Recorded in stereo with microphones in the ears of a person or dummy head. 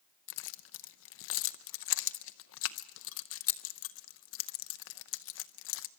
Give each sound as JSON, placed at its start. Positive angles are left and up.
{"t": 0.3, "sound": "keys jangling", "side_deg": 80, "distance_m": 0.6}